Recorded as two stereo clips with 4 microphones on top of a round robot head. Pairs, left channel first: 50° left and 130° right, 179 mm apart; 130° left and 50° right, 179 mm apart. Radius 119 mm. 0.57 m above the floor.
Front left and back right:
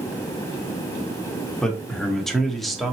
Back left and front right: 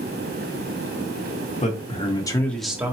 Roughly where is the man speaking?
Behind left.